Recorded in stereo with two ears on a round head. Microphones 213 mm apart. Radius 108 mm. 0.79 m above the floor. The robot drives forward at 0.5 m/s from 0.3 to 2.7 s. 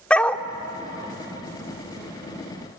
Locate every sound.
0.1 s a dog barking: 5° left (ahead or behind), 0.7 m